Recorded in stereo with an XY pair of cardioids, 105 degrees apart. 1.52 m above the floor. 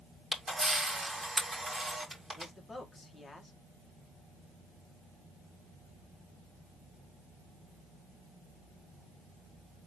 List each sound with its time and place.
0.3 s a camera shutter: 10° right, 2.5 m
2.3 s a man speaking: 20° left, 1.8 m